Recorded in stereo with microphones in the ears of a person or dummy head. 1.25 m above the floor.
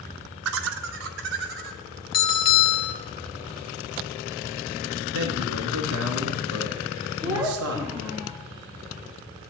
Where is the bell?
20° left (ahead or behind), 0.7 m.